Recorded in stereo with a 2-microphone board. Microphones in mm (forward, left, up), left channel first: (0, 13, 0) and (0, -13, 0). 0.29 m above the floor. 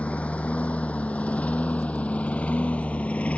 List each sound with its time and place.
0.0 s a lawn mower: 60° left (ahead or behind)